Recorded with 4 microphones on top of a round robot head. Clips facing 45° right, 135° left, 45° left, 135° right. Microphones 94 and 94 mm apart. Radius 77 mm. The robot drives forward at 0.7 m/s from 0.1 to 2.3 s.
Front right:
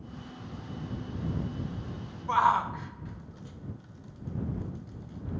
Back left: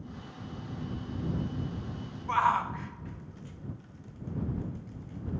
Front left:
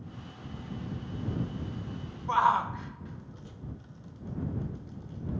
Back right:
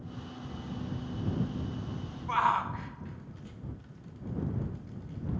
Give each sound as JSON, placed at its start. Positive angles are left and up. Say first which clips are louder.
{"t": 2.3, "sound": "a shout", "louder": "front right 2 dB, front left 3 dB", "azimuth_deg": 5, "distance_m": 0.5}